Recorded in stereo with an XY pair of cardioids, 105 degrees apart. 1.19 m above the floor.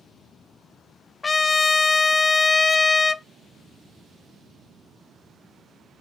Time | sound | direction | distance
1.2 | a trumpet | 20° left | 0.8 m